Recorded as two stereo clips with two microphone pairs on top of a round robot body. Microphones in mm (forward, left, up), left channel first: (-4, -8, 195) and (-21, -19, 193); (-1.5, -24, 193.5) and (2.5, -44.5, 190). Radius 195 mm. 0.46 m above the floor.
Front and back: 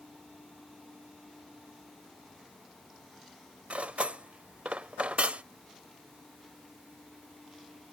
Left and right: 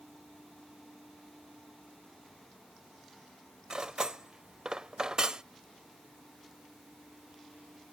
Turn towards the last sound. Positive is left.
turn(degrees=-130)